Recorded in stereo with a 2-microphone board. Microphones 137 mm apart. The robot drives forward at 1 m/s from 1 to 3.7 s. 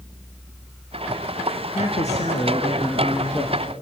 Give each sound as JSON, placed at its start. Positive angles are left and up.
{"t": 1.8, "sound": "a man speaking", "side_deg": 65, "distance_m": 2.5}